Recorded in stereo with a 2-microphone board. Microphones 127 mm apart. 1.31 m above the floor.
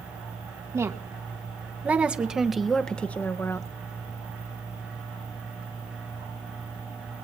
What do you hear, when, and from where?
0.7 s a woman speaking: 25° right (ahead or behind), 2 m; by 3.7 s 25° left (ahead or behind), 1.0 m